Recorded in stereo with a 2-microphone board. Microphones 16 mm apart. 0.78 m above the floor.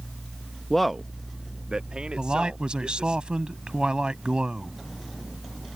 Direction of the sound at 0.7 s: 20° left (ahead or behind).